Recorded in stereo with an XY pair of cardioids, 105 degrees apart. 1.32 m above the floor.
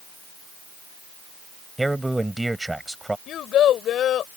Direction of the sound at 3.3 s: 70° left.